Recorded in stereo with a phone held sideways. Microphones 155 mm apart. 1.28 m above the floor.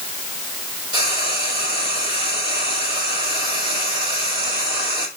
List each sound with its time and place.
0.9 s frying: 25° right (ahead or behind), 5.5 m